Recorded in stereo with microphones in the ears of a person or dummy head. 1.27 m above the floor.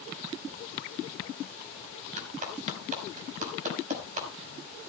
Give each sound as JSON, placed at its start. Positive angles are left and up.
{"t": 2.2, "sound": "a clap", "side_deg": -40, "distance_m": 5.0}